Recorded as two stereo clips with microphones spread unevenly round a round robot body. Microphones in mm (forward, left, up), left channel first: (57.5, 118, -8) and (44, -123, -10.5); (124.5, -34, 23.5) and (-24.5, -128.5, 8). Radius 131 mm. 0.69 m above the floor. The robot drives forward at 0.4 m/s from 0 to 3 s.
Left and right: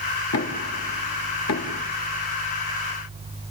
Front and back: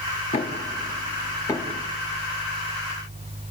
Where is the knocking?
80° left, 1.2 m; by 1.8 s 115° left, 1.3 m.